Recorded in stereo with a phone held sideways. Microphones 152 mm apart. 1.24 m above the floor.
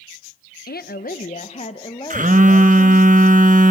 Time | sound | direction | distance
0.7 | a woman speaking | 75° left (ahead or behind) | 0.9 m
2.1 | a phone buzzing | 55° right (ahead or behind) | 1.3 m